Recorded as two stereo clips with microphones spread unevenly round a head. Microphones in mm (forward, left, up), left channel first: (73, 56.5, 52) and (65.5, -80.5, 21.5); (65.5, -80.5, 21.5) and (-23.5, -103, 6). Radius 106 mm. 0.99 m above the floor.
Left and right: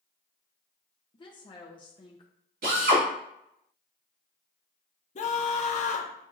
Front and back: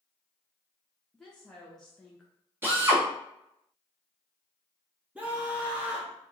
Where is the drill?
100° right, 1.7 m.